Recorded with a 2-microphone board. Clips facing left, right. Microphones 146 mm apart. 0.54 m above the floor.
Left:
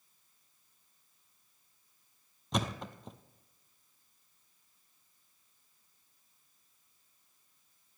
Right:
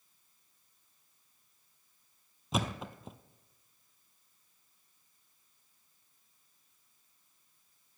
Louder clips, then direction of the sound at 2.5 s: Even; 5° right (ahead or behind).